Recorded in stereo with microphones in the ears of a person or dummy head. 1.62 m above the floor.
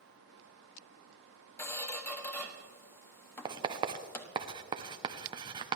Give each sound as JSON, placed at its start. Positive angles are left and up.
{"t": 1.6, "sound": "a squeak", "side_deg": 20, "distance_m": 1.6}
{"t": 3.5, "sound": "writing", "side_deg": -25, "distance_m": 0.9}